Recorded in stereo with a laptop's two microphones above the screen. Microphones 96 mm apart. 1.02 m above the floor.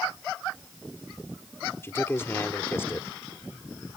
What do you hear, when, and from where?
1.8 s a man speaking: 25° left (ahead or behind)